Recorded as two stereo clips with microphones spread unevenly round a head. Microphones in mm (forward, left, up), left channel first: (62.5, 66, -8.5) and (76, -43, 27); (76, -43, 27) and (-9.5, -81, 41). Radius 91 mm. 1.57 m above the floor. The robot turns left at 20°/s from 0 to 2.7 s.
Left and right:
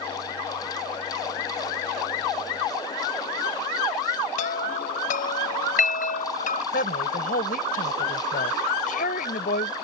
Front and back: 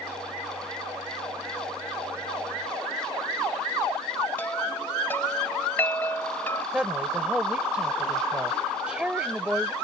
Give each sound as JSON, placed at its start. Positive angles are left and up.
{"t": 4.4, "sound": "a chime", "azimuth_deg": 105}
{"t": 6.7, "sound": "a woman speaking", "azimuth_deg": 120}